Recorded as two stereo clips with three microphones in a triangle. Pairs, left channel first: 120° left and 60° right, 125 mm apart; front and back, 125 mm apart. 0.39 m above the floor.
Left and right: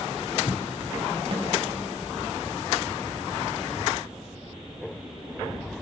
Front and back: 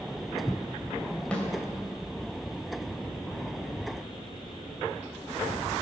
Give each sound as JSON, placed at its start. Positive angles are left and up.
{"t": 1.3, "sound": "a snare drum", "azimuth_deg": -80, "distance_m": 2.0}